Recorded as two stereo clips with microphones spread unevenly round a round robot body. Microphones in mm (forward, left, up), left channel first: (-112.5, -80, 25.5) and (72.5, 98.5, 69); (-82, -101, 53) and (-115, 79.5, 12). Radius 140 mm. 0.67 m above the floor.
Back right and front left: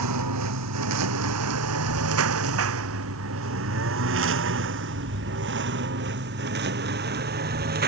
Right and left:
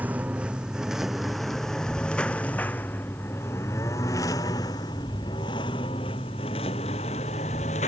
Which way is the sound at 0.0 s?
15° left.